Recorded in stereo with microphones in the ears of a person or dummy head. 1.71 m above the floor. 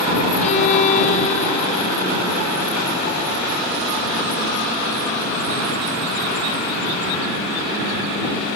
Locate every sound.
0.4 s a violin: 40° left (ahead or behind)